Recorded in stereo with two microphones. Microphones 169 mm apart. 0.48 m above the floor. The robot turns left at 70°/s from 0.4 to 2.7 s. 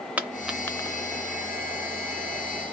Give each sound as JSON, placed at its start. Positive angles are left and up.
{"t": 0.2, "sound": "a dropped coin", "side_deg": -10, "distance_m": 0.6}